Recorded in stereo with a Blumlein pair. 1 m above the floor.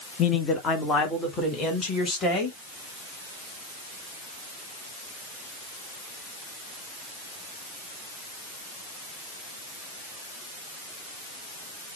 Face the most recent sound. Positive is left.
turn(degrees=20)